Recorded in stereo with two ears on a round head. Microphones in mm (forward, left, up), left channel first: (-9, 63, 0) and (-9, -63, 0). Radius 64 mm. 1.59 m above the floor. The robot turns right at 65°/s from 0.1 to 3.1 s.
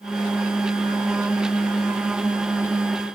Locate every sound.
Only background noise.